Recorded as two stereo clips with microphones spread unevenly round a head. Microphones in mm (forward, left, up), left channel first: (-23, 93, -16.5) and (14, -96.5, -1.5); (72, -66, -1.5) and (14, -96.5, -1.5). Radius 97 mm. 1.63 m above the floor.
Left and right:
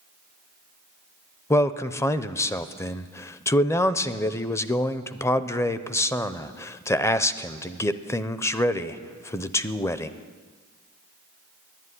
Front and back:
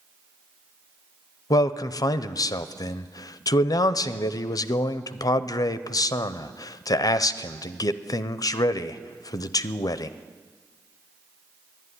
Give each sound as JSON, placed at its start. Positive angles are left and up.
{"t": 1.5, "sound": "a man speaking", "azimuth_deg": 25, "distance_m": 0.5}